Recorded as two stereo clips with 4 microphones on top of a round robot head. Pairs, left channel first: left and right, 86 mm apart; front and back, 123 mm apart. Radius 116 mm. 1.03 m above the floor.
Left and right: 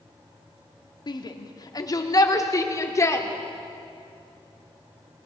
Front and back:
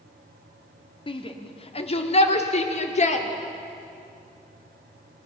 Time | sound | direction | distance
1.1 | a shout | 50° left | 2.5 m